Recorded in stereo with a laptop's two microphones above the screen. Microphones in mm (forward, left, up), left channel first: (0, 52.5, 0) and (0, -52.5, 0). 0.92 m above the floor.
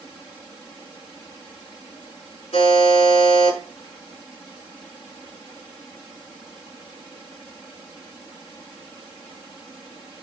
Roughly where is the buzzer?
Left.